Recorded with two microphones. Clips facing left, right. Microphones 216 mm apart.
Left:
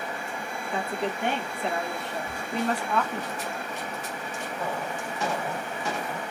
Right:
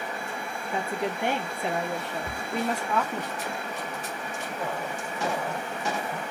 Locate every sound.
0.7 s a woman speaking: 10° right (ahead or behind), 1.3 m
2.2 s a cupboard door: 35° right (ahead or behind), 1.2 m